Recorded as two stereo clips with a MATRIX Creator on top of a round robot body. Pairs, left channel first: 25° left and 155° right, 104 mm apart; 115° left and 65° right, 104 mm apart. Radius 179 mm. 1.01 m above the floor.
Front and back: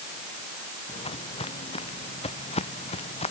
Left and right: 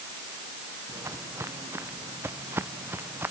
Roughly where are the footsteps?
Ahead.